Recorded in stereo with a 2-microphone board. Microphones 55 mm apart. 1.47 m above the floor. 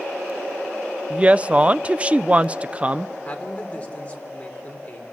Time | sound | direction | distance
1.1 | a woman speaking | 25° right (ahead or behind) | 0.6 m
3.2 | a man speaking | 30° left (ahead or behind) | 4 m